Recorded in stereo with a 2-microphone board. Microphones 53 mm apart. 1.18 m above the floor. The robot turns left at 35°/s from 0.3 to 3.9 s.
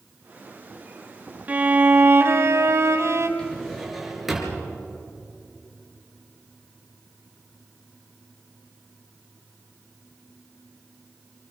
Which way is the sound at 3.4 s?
15° left (ahead or behind).